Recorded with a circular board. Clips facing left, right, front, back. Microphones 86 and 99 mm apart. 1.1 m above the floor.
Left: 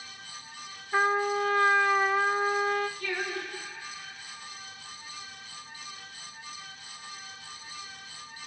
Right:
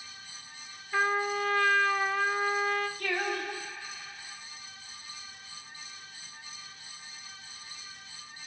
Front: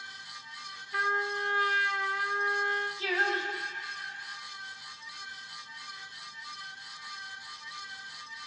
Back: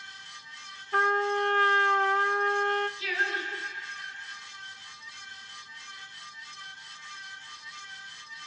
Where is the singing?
55° right, 4 m.